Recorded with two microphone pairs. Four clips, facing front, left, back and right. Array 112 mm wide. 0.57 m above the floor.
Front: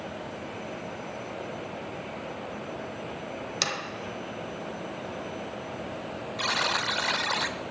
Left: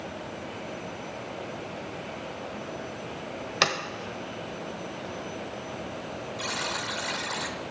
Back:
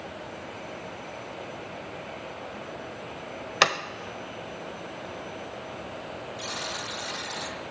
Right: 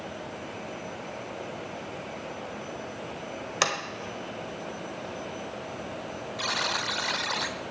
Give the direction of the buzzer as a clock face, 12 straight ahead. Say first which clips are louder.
Right 3 dB, front 10 dB; 1 o'clock.